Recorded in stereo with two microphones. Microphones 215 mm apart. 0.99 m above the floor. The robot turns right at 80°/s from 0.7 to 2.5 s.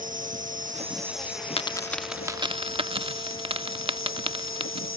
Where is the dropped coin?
25° left (ahead or behind); by 4.9 s 25° right (ahead or behind).